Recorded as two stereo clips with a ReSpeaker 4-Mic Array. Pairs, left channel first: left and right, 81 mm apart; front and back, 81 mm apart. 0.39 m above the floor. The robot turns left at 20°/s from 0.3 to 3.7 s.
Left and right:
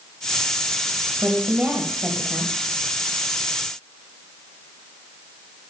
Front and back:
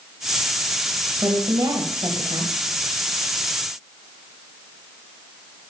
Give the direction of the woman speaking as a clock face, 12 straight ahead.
5 o'clock.